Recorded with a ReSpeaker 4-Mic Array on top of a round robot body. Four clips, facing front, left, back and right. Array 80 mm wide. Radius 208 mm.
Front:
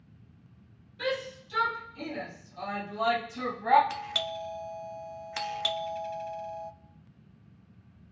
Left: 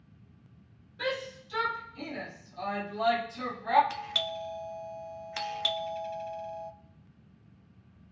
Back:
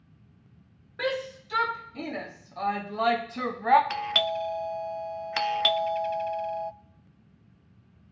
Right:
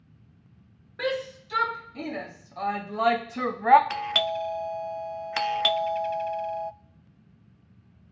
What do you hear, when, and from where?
1.0 s a shout: 135° right, 4 m; by 3.8 s 100° right, 1.4 m
3.9 s a doorbell: 125° right, 0.6 m